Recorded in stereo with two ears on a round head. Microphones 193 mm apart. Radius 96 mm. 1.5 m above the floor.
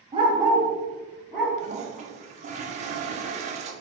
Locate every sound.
0.1 s a dog barking: 25° right (ahead or behind), 0.9 m; by 1.5 s 5° left (ahead or behind), 1.8 m
1.6 s a toilet flushing: 35° right (ahead or behind), 0.5 m